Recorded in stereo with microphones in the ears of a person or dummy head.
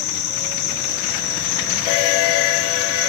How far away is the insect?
About 1.6 m.